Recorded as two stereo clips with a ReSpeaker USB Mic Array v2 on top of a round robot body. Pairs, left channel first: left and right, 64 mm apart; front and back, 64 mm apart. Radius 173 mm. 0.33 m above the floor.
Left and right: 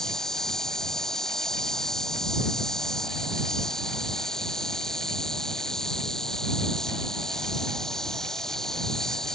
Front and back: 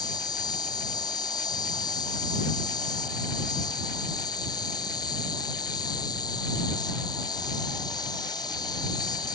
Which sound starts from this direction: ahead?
An insect, at 0.0 s.